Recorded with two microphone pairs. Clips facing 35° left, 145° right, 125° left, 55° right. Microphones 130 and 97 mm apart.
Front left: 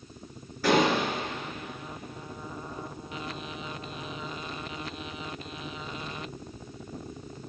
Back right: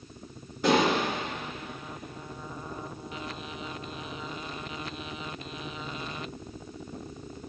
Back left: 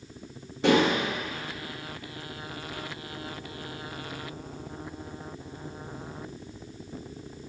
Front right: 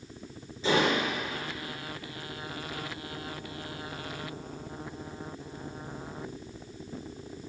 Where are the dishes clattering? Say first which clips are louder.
Even, back left 4 dB; 145° left, 4.5 m.